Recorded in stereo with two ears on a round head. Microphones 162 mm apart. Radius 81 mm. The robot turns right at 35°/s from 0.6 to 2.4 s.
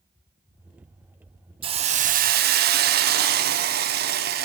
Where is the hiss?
30° right (ahead or behind), 1.0 m; by 4.5 s 60° right (ahead or behind), 1.0 m.